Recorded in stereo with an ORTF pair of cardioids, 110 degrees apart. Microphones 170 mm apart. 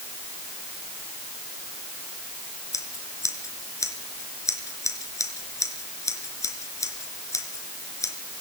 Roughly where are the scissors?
Ahead.